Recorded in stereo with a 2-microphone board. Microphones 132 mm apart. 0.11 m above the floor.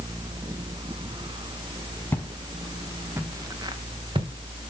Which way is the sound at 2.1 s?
15° left (ahead or behind).